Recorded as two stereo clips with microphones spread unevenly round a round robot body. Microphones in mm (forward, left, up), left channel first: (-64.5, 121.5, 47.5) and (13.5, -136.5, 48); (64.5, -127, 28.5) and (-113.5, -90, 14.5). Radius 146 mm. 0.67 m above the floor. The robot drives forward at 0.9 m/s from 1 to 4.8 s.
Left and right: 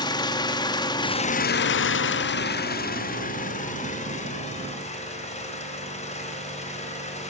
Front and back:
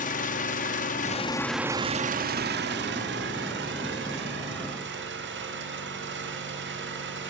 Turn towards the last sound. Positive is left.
turn(degrees=175)